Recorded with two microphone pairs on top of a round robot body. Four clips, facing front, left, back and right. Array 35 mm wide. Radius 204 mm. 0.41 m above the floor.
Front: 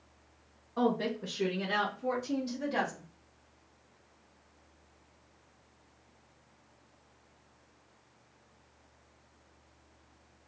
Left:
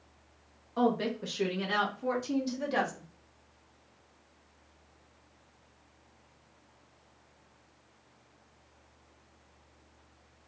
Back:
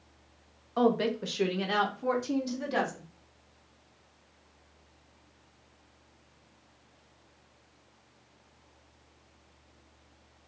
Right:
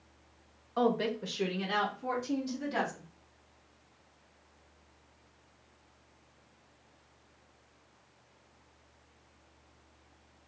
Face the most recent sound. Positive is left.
turn(degrees=135)